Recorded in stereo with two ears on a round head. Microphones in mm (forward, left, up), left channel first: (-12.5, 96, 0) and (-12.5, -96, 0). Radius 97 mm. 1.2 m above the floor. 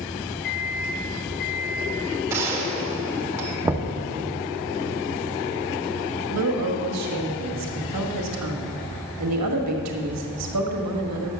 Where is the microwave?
40° left (ahead or behind), 0.5 m.